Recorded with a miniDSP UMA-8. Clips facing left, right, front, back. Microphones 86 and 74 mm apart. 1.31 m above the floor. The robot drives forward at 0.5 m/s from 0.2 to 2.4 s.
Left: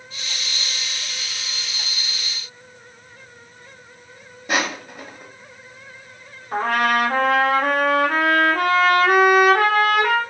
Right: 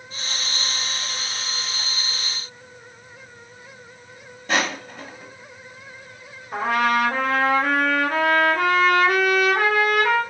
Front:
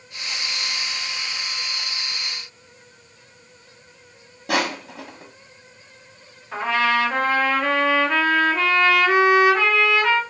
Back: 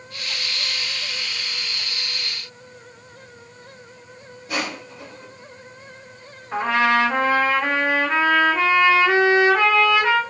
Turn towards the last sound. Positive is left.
turn(degrees=110)